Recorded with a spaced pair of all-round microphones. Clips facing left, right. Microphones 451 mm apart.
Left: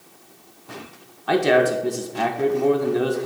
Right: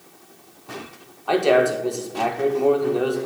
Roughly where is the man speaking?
Left.